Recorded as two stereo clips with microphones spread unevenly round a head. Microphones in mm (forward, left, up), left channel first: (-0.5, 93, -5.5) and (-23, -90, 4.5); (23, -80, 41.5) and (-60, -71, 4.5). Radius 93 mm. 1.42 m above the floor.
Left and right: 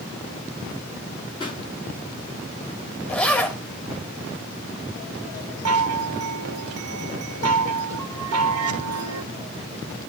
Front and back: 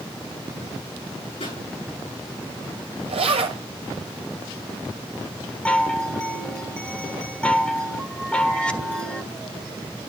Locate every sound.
1.4 s a pop: 15° left, 7.5 m
3.1 s a zipper: 165° left, 2.5 m
5.7 s a chime: 85° right, 1.6 m